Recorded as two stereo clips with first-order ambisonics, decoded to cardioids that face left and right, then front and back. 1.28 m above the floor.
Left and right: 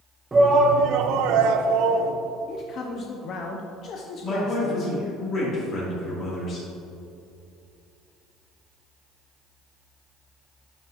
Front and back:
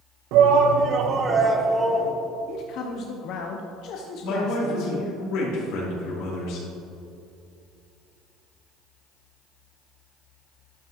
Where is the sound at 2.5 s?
35° left, 0.6 m.